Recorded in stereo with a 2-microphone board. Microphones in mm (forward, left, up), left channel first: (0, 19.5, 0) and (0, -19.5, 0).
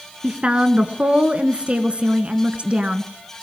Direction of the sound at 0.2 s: 30° right (ahead or behind).